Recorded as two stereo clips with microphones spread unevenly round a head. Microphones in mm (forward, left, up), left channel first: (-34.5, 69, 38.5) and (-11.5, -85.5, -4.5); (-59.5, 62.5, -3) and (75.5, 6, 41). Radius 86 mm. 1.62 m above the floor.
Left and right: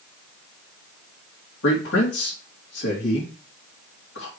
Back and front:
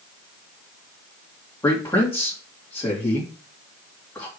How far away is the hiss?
No hiss in this recording.